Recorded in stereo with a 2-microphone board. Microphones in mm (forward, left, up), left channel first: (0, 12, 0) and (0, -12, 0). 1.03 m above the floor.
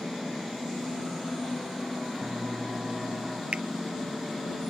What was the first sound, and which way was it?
A piano, 30° right (ahead or behind).